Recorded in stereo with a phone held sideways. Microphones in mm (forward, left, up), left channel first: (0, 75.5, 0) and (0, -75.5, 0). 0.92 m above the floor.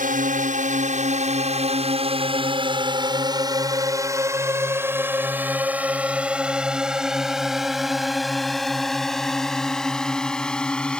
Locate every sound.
0.0 s a drone: 65° right (ahead or behind); by 11.0 s 5° left (ahead or behind)